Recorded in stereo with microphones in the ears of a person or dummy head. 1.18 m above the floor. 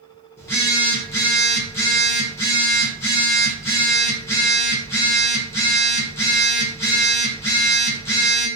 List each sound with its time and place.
0.4 s a phone buzzing: 15° left (ahead or behind), 1.0 m